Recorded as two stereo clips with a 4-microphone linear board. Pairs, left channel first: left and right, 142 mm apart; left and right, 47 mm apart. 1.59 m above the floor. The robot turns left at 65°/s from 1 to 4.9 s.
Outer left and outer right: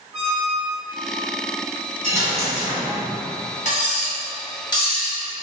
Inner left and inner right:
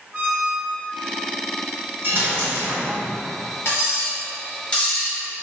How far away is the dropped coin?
About 1.3 m.